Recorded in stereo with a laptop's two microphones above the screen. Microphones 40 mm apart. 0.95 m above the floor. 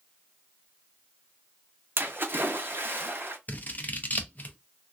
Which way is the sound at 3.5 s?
45° left (ahead or behind).